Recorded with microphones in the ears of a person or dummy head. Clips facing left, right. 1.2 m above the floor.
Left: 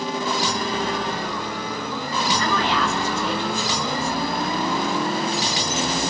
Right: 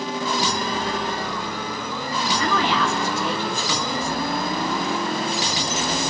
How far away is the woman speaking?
About 4 m.